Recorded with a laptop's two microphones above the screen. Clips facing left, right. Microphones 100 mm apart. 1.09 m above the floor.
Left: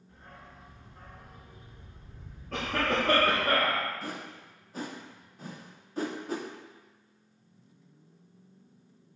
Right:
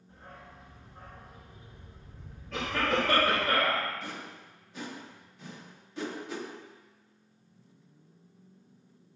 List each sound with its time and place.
0.1 s a dog barking: 30° right (ahead or behind), 3 m
2.5 s a cough: 50° left (ahead or behind), 2.5 m
4.0 s a whoosh: 40° left (ahead or behind), 0.8 m